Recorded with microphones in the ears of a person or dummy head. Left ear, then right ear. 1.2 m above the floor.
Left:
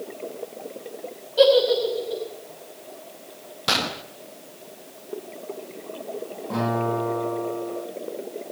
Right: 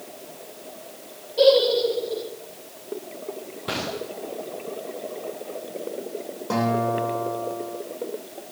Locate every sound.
1.4 s a giggle: 55° left (ahead or behind), 6.5 m
3.7 s a gunshot: 75° left (ahead or behind), 1.2 m
6.5 s a guitar: 70° right (ahead or behind), 10 m